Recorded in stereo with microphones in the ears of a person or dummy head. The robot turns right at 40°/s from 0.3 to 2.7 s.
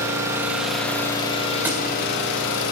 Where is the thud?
10° right (ahead or behind), 1.7 m; by 1.8 s 5° right (ahead or behind), 1.7 m.